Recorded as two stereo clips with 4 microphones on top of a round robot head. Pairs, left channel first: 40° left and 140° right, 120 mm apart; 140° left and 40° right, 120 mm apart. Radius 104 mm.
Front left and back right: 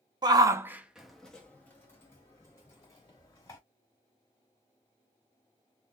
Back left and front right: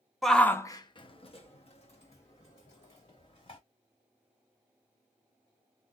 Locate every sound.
0.2 s a shout: 130° right, 0.6 m; by 3.6 s 105° left, 2.0 m